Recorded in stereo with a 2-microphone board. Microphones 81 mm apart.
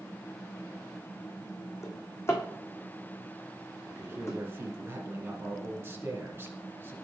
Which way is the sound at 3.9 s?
30° right (ahead or behind).